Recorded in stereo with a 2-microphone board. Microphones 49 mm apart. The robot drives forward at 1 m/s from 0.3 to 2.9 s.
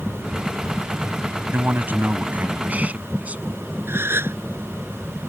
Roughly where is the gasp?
Right.